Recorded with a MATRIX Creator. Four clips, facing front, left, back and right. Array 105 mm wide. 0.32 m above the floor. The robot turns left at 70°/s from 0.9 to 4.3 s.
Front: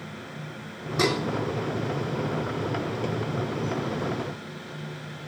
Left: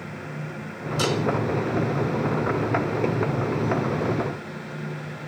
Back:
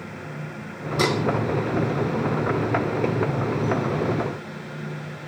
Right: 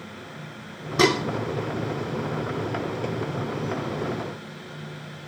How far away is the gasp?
I don't hear a gasp.